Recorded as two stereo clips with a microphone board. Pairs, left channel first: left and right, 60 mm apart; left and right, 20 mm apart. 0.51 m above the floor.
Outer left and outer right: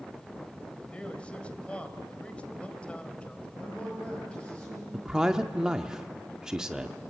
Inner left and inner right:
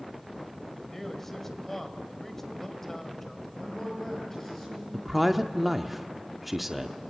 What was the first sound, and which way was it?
A man speaking, 20° left (ahead or behind).